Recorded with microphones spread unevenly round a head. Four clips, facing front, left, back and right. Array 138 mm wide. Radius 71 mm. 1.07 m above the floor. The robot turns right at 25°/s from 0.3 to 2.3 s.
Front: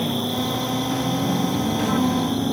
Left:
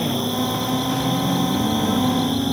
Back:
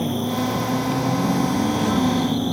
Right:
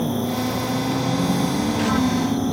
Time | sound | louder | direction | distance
0.0 | an insect | even, back 1 dB | 50° left | ?